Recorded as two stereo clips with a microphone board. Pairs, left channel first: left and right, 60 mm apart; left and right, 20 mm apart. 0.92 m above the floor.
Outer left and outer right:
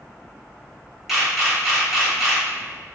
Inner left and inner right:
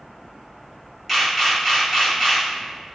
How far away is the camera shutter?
About 1.5 m.